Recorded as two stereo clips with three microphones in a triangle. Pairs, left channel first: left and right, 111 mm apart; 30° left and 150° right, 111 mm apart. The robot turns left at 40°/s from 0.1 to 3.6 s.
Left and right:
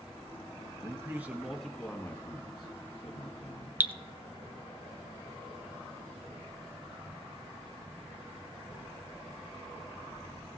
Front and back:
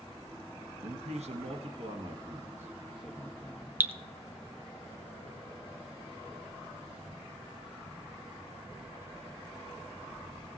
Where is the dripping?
125° right, 0.5 m.